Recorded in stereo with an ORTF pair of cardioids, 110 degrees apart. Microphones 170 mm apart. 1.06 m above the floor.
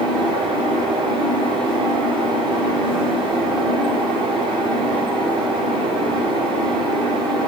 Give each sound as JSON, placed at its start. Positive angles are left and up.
{"t": 0.0, "sound": "a fan", "azimuth_deg": -30, "distance_m": 1.4}